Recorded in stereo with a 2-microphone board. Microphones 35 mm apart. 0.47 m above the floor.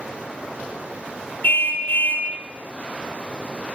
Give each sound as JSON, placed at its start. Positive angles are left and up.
{"t": 1.4, "sound": "a car horn", "side_deg": 60, "distance_m": 5.0}